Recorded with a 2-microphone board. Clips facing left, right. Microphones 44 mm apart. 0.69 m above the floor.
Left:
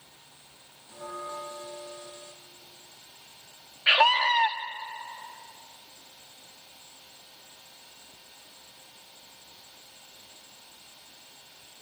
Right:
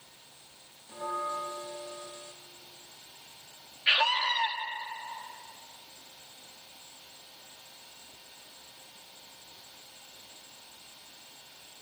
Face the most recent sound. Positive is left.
turn(degrees=45)  # may be behind; listen again after turning